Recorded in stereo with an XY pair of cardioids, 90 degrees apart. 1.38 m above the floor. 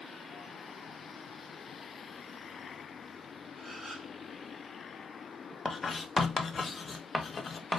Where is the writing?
40° left, 0.9 m.